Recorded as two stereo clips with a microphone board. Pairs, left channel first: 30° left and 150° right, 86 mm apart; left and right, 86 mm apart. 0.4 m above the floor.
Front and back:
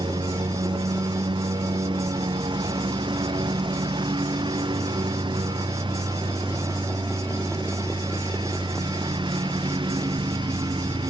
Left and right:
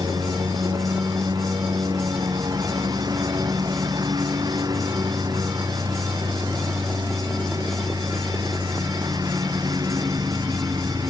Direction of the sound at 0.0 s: 130° right.